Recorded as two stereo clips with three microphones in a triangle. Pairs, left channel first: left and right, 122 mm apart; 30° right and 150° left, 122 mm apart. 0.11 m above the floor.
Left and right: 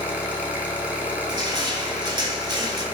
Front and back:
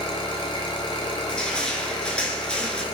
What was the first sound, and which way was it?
An engine running, 15° right.